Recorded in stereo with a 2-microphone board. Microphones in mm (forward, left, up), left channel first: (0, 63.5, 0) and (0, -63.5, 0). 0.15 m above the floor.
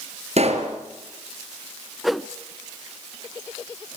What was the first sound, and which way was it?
A pop, 55° right (ahead or behind).